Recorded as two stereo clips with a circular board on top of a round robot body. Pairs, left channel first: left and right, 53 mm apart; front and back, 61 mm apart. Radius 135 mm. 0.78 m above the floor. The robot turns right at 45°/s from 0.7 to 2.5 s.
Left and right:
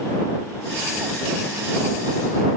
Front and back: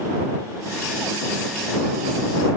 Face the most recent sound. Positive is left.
No sound to turn to.